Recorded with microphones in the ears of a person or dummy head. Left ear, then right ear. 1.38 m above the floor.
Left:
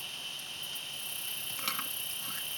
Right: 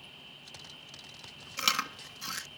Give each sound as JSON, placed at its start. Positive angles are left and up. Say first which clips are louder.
{"t": 0.0, "sound": "an insect", "louder": "left 9 dB", "side_deg": 70}
{"t": 1.6, "sound": "chewing", "louder": "right 9 dB", "side_deg": -15}